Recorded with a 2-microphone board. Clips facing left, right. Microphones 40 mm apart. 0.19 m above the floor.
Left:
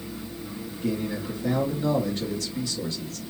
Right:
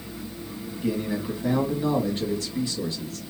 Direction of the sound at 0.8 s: 25° right (ahead or behind).